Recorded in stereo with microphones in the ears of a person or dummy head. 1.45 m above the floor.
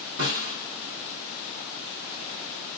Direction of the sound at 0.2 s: 75° right (ahead or behind).